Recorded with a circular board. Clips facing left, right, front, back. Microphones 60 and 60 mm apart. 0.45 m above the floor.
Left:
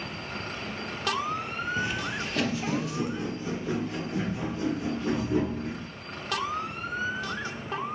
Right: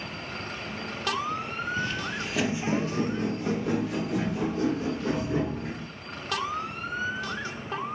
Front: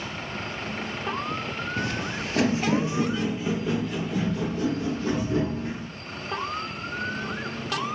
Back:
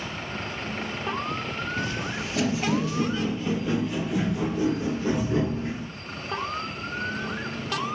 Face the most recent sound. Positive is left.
turn(degrees=-110)